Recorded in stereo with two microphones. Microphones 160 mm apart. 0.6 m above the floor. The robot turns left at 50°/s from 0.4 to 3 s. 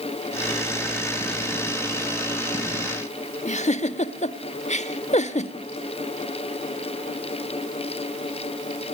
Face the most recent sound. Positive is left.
turn(degrees=45)  # may be behind; listen again after turning